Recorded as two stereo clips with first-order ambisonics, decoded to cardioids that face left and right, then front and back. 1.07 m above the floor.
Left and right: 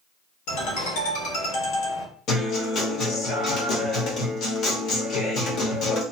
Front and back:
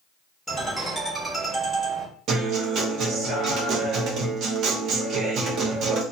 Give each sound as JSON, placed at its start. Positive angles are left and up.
{"t": 0.5, "sound": "a ringtone", "azimuth_deg": 90, "distance_m": 1.3}
{"t": 2.3, "sound": "a guitar", "azimuth_deg": 135, "distance_m": 1.0}